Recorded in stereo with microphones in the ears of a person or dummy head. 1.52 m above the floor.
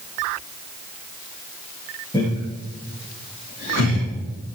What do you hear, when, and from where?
2.1 s laughter: 25° left (ahead or behind), 2.5 m; by 4.1 s 45° left (ahead or behind), 5 m